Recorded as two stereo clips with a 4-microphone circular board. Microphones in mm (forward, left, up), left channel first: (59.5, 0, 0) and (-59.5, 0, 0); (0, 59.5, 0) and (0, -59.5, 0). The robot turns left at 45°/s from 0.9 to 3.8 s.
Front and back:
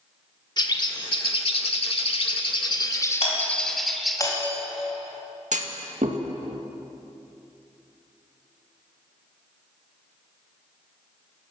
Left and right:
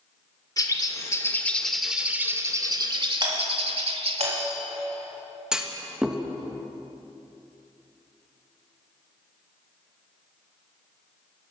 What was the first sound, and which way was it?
A bird, 40° left.